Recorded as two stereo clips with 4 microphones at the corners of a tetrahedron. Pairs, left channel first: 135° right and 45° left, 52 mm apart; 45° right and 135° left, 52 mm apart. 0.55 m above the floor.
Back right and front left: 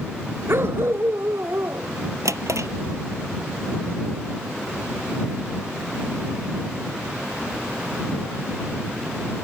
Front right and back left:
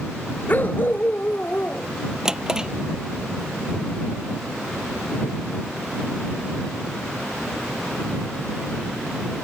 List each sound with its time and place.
0.5 s a dog barking: 10° left
2.2 s a drawer: 60° left